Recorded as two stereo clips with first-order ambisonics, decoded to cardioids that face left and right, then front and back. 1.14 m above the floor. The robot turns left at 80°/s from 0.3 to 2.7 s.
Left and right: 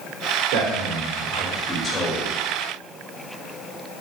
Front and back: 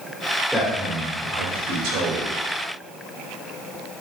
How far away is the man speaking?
About 3.5 m.